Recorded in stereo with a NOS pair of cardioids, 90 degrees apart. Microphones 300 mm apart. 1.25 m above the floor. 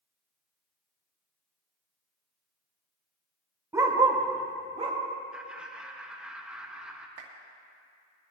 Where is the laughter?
5° right, 1.5 m.